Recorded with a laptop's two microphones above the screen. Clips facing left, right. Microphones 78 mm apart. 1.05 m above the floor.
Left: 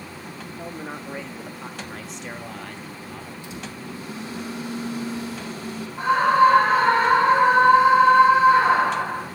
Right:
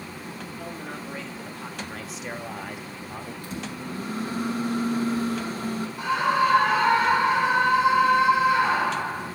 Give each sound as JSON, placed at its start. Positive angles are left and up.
{"t": 0.6, "sound": "a man speaking", "side_deg": 25, "distance_m": 1.7}
{"t": 3.4, "sound": "a microwave", "side_deg": -45, "distance_m": 5.5}
{"t": 6.0, "sound": "a scream", "side_deg": 45, "distance_m": 5.0}